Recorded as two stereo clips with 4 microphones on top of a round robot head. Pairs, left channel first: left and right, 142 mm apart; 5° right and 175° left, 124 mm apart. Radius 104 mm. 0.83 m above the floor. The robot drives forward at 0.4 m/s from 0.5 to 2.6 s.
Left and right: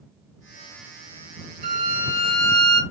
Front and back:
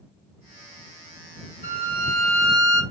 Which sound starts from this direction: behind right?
A violin, at 1.6 s.